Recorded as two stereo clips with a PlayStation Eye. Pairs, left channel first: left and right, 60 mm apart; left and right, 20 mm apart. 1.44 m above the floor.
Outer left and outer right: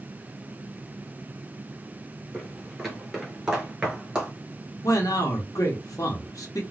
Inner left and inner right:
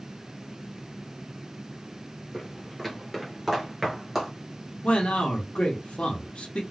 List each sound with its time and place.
2.3 s footsteps: 5° left (ahead or behind), 1.4 m; by 4.3 s 15° right (ahead or behind), 1.5 m
4.8 s a man speaking: 80° left, 0.8 m